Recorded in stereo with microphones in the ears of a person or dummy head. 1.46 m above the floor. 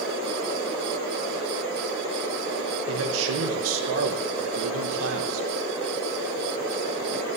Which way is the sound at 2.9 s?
75° right (ahead or behind).